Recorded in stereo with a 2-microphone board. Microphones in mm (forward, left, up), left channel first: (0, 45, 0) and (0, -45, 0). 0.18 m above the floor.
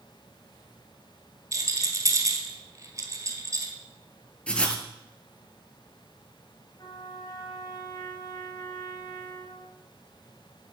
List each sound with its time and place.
1.5 s a rattle: 35° right (ahead or behind), 1.5 m
4.5 s writing: 15° left (ahead or behind), 1.2 m
6.8 s a trumpet: 50° left (ahead or behind), 2 m